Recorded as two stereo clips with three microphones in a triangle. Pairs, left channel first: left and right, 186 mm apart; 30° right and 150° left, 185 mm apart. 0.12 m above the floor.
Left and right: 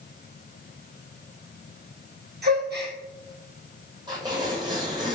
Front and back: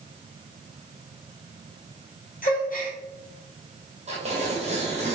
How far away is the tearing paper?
About 1.2 m.